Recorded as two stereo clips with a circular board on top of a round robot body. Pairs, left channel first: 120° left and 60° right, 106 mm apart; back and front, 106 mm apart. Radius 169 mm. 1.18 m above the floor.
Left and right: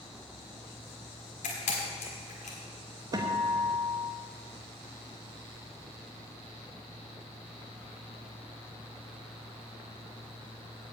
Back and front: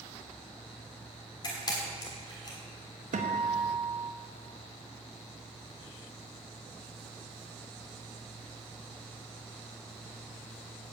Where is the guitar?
Straight ahead, 1.0 m.